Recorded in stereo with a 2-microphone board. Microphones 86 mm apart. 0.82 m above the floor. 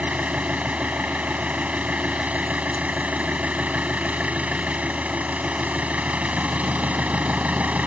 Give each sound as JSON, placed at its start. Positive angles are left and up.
{"t": 0.0, "sound": "an engine running", "side_deg": -15}